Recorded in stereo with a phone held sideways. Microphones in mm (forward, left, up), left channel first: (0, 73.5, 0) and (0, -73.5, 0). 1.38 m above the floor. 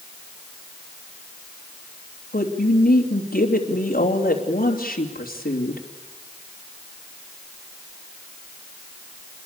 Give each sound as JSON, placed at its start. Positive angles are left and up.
{"t": 2.3, "sound": "a woman speaking", "side_deg": 80, "distance_m": 3.0}